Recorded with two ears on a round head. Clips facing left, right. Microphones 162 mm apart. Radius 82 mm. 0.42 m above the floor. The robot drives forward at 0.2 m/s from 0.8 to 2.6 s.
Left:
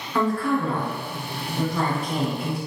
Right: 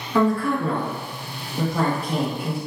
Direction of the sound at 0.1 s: 10° right (ahead or behind).